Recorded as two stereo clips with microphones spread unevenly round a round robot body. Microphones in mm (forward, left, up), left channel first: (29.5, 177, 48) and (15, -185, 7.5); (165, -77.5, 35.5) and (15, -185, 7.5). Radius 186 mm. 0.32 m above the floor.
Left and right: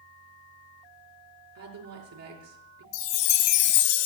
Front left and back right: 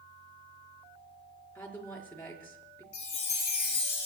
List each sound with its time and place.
1.6 s a woman speaking: 45° right, 6.5 m
2.9 s a chime: 90° left, 1.7 m